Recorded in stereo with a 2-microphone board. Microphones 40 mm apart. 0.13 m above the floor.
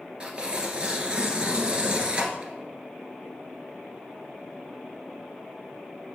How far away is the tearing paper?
About 1.4 m.